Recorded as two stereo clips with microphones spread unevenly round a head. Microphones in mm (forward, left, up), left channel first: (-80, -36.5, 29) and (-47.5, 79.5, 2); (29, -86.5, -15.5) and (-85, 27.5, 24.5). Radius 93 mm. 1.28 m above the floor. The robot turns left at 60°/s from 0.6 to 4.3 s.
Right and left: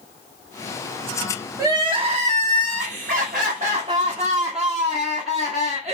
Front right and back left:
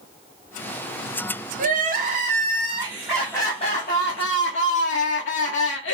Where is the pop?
I don't hear a pop.